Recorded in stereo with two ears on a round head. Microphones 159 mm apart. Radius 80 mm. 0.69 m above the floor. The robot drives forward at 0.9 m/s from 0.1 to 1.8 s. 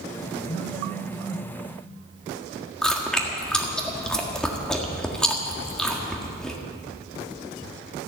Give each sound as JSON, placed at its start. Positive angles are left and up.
{"t": 0.5, "sound": "a phone buzzing", "side_deg": 55, "distance_m": 0.8}
{"t": 2.8, "sound": "chewing", "side_deg": 5, "distance_m": 1.6}